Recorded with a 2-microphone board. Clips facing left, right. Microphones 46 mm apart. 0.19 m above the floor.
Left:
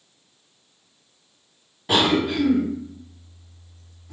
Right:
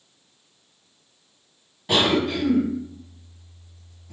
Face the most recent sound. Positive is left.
turn(degrees=5)  # may be behind; listen again after turning